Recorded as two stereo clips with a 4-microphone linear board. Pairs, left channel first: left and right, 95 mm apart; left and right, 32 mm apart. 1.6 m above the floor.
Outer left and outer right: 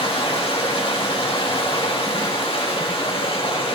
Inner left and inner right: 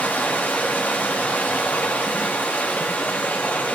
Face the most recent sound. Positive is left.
turn(degrees=85)